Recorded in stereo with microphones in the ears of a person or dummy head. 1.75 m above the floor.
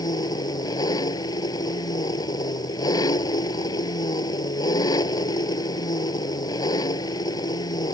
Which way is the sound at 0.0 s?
25° left (ahead or behind).